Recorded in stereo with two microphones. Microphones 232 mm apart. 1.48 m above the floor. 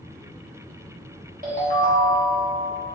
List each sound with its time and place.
1.4 s a ringtone: 35° right (ahead or behind), 0.8 m